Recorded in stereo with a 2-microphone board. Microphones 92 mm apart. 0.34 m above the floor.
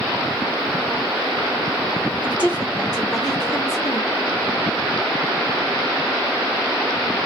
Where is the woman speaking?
15° right (ahead or behind), 1.2 m; by 4.1 s 10° left (ahead or behind), 1.5 m.